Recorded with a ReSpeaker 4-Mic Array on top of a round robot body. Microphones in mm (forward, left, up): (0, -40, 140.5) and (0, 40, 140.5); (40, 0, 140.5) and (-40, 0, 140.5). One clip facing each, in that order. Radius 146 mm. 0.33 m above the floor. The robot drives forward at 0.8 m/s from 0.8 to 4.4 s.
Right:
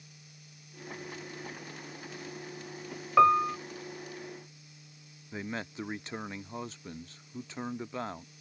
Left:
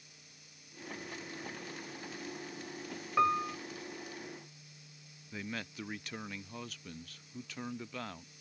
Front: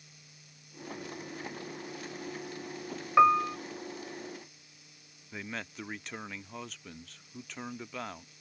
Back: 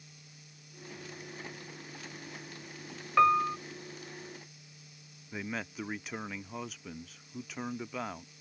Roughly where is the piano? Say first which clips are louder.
Right 8 dB, front 2 dB; right.